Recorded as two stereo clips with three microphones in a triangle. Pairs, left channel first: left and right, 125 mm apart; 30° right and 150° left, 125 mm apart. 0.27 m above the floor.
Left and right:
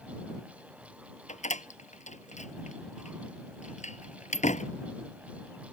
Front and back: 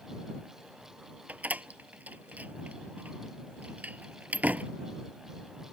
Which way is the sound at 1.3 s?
75° left.